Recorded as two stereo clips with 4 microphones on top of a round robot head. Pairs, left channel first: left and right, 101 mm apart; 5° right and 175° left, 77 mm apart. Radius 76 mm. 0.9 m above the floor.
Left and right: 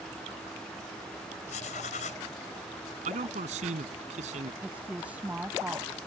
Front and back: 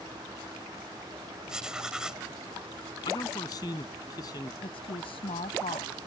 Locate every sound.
1.5 s writing: 90° left
3.0 s a man speaking: 65° right
4.6 s a woman speaking: 10° right